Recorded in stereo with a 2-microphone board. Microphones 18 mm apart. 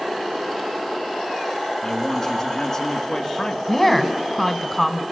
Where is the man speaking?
20° left (ahead or behind), 2 m.